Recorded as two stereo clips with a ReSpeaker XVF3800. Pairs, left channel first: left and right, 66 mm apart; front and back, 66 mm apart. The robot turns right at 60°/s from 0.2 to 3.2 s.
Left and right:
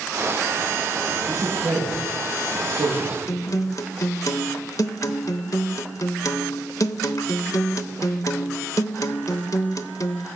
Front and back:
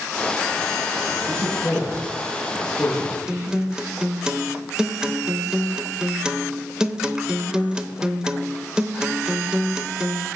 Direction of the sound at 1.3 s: 135° right.